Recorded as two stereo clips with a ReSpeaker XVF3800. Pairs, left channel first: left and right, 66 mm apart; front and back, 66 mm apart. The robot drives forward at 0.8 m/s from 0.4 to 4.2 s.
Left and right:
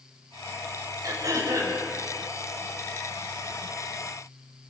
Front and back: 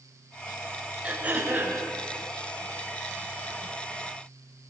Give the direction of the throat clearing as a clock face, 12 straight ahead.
4 o'clock.